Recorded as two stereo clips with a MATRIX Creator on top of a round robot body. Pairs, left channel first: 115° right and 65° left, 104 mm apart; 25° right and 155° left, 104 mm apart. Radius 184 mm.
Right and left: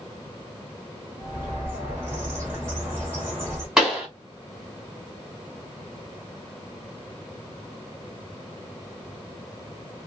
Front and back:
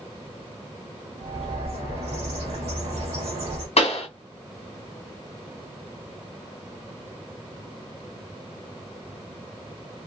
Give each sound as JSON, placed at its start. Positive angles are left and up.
{"t": 1.2, "sound": "a bird", "azimuth_deg": 135, "distance_m": 0.8}
{"t": 3.8, "sound": "a pop", "azimuth_deg": -20, "distance_m": 1.8}